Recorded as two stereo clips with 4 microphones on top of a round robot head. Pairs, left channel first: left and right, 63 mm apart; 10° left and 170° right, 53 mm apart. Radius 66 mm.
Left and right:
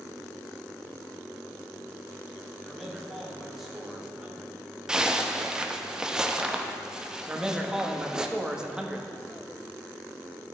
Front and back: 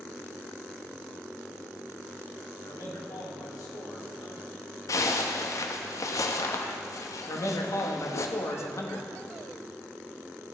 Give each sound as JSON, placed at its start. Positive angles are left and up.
{"t": 2.6, "sound": "a man speaking", "azimuth_deg": 5, "distance_m": 2.0}
{"t": 4.9, "sound": "a zipper", "azimuth_deg": -10, "distance_m": 0.7}
{"t": 7.3, "sound": "a man speaking", "azimuth_deg": -10, "distance_m": 1.3}